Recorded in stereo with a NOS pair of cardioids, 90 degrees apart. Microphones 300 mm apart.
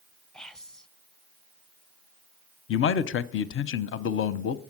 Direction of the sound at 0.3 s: Straight ahead.